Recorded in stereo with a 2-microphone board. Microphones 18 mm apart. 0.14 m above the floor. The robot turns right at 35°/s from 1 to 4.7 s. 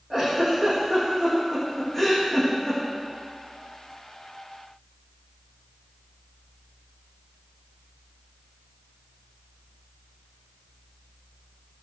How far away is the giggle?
About 7.5 m.